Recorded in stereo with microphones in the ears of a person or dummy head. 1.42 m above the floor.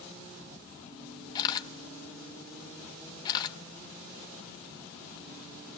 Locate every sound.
1.4 s a camera shutter: 25° left (ahead or behind), 1.0 m